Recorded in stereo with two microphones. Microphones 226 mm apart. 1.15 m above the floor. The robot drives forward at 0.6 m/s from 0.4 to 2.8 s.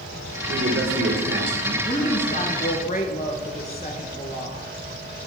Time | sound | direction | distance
0.5 | a man speaking | 55° right (ahead or behind) | 1.6 m
1.8 | a woman speaking | 30° left (ahead or behind) | 1.8 m